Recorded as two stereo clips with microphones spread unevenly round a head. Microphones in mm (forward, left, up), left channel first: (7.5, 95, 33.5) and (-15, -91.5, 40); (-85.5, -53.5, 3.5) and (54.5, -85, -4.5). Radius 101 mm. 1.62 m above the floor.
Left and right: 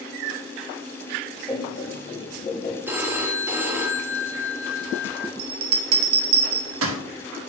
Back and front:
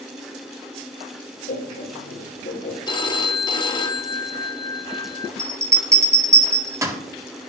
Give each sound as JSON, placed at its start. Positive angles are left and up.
{"t": 1.5, "sound": "laughter", "azimuth_deg": 150, "distance_m": 3.0}
{"t": 2.9, "sound": "a phone ringing", "azimuth_deg": -170, "distance_m": 1.2}
{"t": 5.4, "sound": "a bell", "azimuth_deg": -85, "distance_m": 1.8}